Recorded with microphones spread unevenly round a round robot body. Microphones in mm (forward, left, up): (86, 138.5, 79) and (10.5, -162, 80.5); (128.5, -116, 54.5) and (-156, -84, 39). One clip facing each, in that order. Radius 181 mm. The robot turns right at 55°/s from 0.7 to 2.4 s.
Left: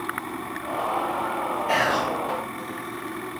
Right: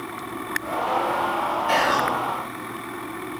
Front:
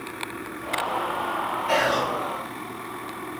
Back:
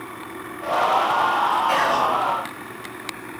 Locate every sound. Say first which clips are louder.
1.7 s whispering: right 1 dB, front 3 dB; 105° right, 1.3 m; by 2.1 s 85° right, 1.3 m